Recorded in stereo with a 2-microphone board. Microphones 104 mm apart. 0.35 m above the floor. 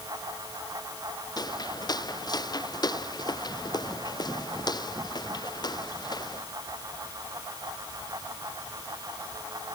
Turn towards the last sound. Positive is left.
turn(degrees=40)  # may be behind; listen again after turning